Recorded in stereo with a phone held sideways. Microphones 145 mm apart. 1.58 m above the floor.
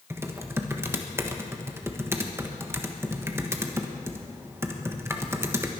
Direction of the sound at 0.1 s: 15° right (ahead or behind).